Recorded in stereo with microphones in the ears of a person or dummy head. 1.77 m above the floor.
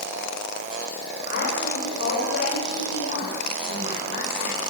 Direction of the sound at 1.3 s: 55° left (ahead or behind).